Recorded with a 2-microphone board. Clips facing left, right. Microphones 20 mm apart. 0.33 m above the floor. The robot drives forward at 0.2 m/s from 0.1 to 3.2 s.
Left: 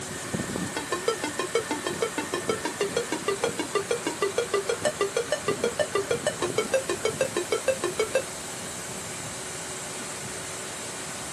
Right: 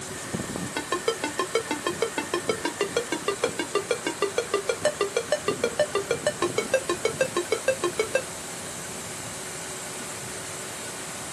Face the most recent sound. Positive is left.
turn(degrees=-20)  # may be behind; listen again after turning